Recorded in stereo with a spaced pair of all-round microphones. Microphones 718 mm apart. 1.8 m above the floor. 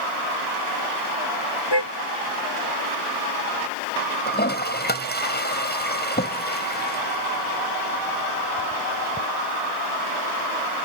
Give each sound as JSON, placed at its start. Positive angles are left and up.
{"t": 1.7, "sound": "a car horn", "side_deg": 35}
{"t": 4.3, "sound": "a toilet flushing", "side_deg": 15}